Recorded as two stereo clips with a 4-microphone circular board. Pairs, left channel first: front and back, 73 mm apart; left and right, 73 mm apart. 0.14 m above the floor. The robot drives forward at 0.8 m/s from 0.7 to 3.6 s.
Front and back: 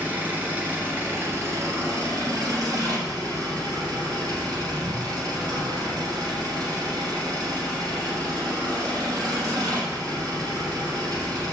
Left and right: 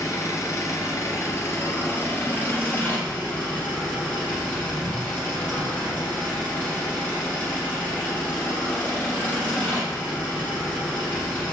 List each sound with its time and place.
0.0 s an engine running: 120° left, 2 m; by 11.5 s 155° left, 3.5 m